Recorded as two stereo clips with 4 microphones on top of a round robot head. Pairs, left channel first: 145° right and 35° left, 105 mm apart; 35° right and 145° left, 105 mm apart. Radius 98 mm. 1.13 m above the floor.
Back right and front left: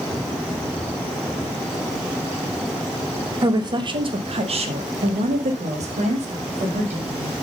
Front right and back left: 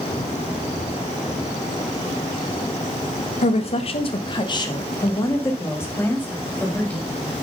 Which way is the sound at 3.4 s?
20° right.